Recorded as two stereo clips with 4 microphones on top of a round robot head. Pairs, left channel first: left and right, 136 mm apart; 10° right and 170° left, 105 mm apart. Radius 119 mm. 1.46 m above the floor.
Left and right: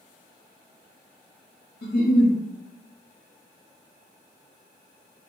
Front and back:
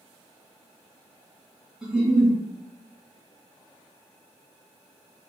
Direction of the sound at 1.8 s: 85° left.